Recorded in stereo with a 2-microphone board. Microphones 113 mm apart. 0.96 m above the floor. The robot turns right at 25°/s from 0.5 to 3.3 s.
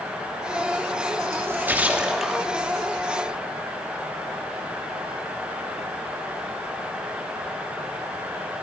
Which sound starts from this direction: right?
A splash, at 1.3 s.